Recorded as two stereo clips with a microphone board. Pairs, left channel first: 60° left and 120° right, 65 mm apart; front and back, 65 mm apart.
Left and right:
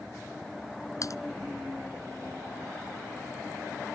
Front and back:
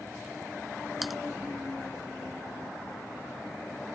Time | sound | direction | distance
1.0 | typing on a keyboard | 90° left | ?